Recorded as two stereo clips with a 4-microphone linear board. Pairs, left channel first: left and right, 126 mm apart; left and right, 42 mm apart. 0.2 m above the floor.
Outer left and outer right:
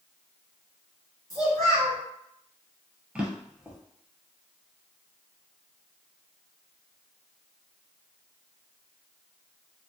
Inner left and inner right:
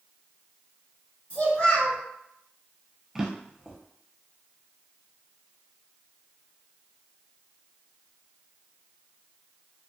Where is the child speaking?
30° left (ahead or behind), 1.4 m.